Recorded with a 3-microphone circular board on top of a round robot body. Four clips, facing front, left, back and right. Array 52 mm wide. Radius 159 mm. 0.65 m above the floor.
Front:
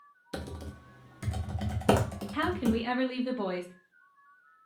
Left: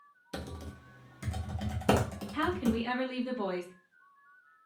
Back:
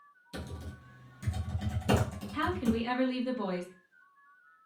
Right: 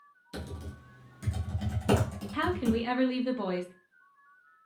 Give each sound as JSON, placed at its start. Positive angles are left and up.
{"t": 0.3, "sound": "typing on a keyboard", "azimuth_deg": 25, "distance_m": 0.5}
{"t": 2.3, "sound": "a woman speaking", "azimuth_deg": -45, "distance_m": 1.0}